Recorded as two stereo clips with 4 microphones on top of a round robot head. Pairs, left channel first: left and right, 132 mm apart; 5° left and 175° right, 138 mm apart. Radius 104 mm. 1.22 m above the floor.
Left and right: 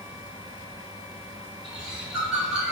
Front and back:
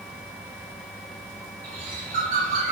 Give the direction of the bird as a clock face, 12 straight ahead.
6 o'clock.